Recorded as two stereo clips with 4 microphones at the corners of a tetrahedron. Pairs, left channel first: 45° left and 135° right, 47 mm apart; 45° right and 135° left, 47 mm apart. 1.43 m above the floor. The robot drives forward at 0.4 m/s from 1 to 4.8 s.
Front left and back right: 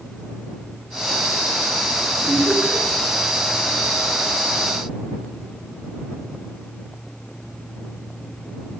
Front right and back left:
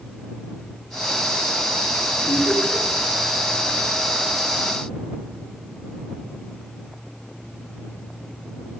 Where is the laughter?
70° right, 6.5 m; by 2.8 s 75° right, 6.5 m.